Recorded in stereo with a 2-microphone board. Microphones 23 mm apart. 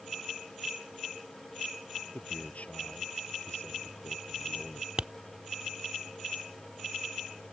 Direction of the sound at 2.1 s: 80° left.